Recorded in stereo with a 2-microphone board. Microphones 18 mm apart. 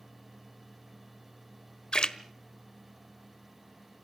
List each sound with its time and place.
1.9 s a splash: 55° left (ahead or behind), 1.1 m